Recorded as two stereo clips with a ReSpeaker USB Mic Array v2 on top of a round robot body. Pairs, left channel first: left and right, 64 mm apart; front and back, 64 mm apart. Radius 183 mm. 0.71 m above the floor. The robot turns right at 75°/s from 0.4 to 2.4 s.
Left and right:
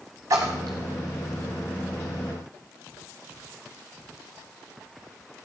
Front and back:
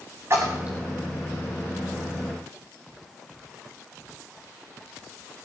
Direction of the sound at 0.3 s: 130° right.